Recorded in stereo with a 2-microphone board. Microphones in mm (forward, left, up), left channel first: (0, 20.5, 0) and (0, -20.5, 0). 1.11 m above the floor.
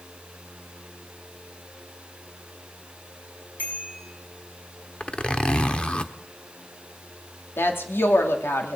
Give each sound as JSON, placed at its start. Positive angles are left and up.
{"t": 3.6, "sound": "a bicycle bell", "side_deg": 55, "distance_m": 7.0}
{"t": 5.0, "sound": "a zipper", "side_deg": 30, "distance_m": 1.0}
{"t": 7.6, "sound": "a woman speaking", "side_deg": 75, "distance_m": 2.5}